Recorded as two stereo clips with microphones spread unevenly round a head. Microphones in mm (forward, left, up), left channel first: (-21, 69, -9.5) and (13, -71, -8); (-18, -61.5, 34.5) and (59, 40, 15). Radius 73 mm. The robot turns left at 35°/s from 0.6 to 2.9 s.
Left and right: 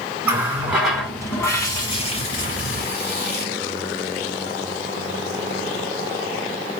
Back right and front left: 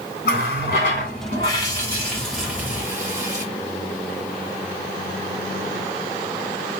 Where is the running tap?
155° right, 1.9 m; by 3.5 s 125° left, 1.9 m.